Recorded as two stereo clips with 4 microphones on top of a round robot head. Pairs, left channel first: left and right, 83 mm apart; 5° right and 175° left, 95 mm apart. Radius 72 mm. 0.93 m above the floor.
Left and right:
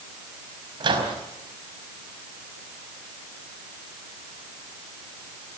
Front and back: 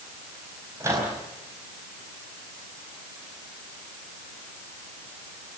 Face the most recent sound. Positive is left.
turn(degrees=-120)